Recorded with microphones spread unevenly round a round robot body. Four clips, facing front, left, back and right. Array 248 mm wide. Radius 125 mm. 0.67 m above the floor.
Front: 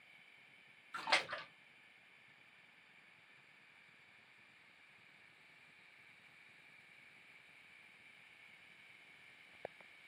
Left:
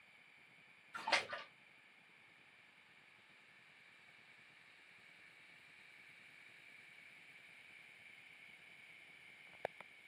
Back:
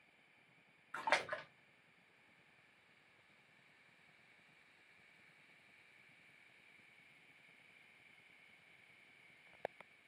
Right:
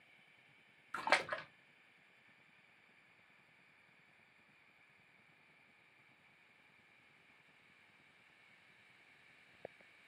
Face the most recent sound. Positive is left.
turn(degrees=-85)